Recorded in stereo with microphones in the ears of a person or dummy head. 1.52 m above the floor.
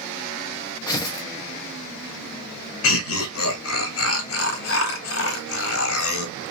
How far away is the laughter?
About 0.9 m.